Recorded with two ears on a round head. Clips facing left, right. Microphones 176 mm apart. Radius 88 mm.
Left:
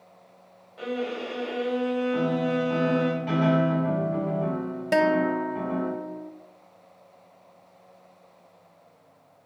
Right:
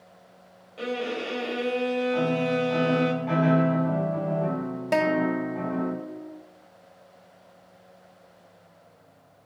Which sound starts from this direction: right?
A violin, at 0.8 s.